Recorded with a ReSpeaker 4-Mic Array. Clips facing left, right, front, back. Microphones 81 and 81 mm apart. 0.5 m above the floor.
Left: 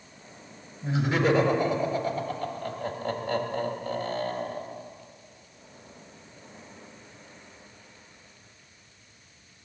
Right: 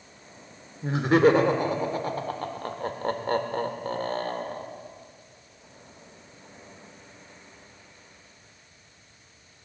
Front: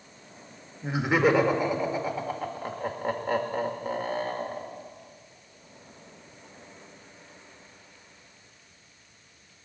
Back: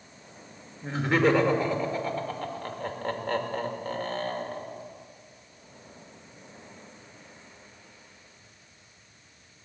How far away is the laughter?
About 1.5 m.